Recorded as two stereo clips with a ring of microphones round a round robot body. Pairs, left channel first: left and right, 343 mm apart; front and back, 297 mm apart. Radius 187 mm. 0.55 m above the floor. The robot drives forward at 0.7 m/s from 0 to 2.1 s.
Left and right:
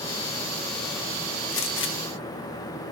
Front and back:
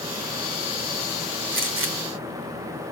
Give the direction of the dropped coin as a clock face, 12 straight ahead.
I don't hear a dropped coin.